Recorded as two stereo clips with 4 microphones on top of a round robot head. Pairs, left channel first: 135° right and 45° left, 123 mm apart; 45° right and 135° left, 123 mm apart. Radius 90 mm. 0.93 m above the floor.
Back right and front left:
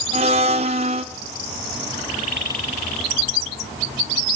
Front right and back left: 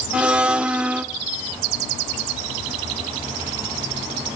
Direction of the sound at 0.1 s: 60° left.